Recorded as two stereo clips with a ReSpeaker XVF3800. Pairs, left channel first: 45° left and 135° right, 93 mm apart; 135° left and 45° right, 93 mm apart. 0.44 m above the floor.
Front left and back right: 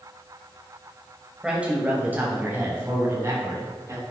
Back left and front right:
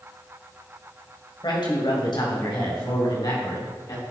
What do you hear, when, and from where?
1.4 s a man speaking: 145° left, 2.5 m; by 4.0 s 175° left, 4.5 m